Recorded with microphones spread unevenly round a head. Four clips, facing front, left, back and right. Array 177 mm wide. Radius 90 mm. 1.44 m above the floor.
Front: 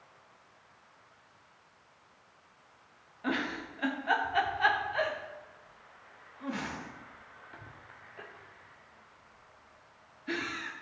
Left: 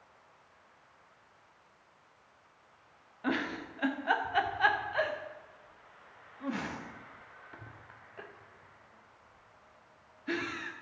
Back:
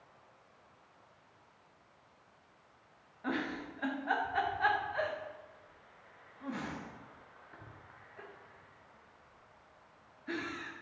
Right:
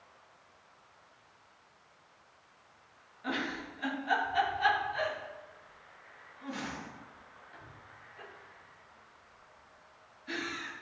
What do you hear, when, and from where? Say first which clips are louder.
3.2 s a giggle: left 3 dB, front 3 dB; 50° left, 0.8 m